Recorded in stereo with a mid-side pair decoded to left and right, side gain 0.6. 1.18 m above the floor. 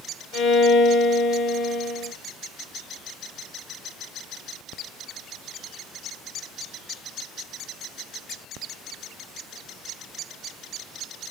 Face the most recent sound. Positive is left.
turn(degrees=60)